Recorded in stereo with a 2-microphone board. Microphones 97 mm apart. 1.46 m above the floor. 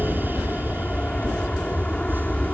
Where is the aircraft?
15° left (ahead or behind).